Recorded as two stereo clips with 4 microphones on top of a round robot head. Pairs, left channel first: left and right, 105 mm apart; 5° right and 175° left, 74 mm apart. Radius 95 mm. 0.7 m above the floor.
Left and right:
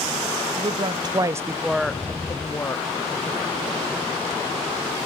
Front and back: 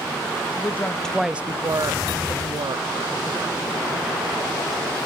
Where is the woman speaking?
55° right, 0.7 m; by 2.9 s 155° left, 1.2 m.